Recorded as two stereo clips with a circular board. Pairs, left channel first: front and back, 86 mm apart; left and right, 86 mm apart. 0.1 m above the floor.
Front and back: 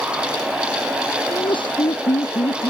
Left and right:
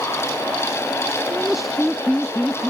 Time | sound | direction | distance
1.3 | laughter | 5° right | ?